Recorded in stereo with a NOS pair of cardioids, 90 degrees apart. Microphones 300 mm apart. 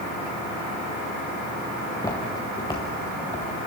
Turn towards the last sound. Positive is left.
turn(degrees=20)